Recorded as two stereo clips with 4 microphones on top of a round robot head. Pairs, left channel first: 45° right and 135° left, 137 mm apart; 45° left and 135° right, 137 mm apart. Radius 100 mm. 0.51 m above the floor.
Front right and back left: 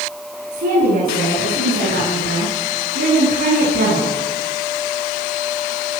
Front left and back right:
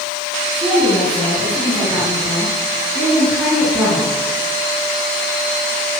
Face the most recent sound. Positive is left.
turn(degrees=150)